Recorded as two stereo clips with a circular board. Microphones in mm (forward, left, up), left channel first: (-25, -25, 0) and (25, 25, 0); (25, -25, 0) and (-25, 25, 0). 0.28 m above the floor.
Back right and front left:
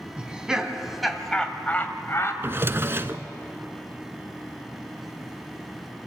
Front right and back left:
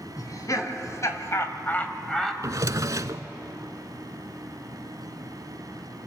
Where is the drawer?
100° left, 0.7 m.